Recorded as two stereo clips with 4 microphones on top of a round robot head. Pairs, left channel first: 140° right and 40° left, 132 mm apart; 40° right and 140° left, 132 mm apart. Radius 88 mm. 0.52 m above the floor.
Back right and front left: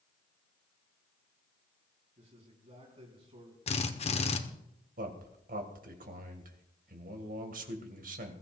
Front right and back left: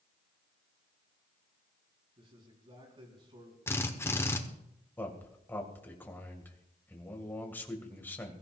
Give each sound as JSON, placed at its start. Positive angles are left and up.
{"t": 2.2, "sound": "a man speaking", "azimuth_deg": 85, "distance_m": 4.5}
{"t": 3.7, "sound": "a drill", "azimuth_deg": -110, "distance_m": 1.3}
{"t": 5.0, "sound": "a man speaking", "azimuth_deg": 35, "distance_m": 2.5}